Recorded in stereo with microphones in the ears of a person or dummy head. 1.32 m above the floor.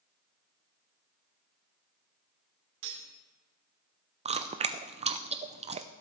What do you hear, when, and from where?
2.8 s cutlery clinking: 70° right (ahead or behind), 2.5 m
4.2 s chewing: 30° right (ahead or behind), 0.6 m